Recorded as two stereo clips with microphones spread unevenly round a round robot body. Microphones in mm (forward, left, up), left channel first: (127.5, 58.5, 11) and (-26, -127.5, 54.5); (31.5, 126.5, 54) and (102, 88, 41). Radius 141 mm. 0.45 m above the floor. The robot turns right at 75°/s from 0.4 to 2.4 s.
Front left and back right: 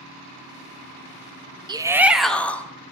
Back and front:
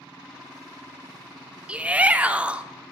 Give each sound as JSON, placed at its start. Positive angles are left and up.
{"t": 1.7, "sound": "a shout", "azimuth_deg": -55, "distance_m": 0.8}